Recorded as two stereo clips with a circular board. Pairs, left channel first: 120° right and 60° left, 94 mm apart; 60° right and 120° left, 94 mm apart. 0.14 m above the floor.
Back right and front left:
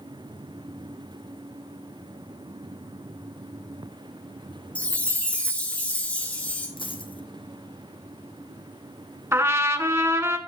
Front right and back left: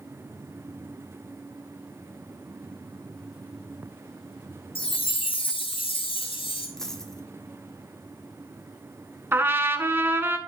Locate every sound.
4.8 s a chime: 45° right, 1.5 m
6.8 s a dropped coin: 145° right, 1.0 m
9.3 s a trumpet: 85° left, 0.6 m